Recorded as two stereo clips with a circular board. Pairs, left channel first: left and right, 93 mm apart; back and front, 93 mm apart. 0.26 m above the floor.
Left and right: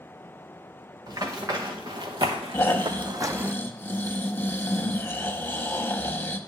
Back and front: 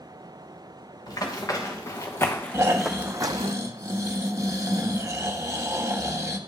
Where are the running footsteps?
135° right, 2 m; by 3.5 s 15° right, 0.6 m.